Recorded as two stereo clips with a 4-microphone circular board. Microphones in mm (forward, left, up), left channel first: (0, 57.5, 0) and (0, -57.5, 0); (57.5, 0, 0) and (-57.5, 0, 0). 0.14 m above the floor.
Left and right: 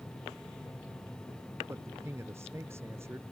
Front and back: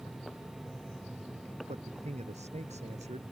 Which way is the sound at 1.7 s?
160° right.